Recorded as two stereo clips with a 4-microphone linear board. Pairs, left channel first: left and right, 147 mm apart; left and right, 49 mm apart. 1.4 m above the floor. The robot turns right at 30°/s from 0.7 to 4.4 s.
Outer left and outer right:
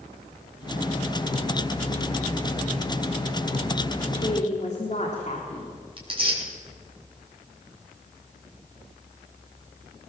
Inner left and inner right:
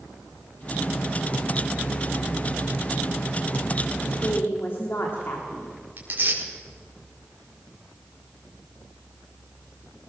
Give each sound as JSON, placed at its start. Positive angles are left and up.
{"t": 4.0, "sound": "a woman speaking", "side_deg": 40, "distance_m": 3.5}
{"t": 6.0, "sound": "tearing paper", "side_deg": -35, "distance_m": 5.5}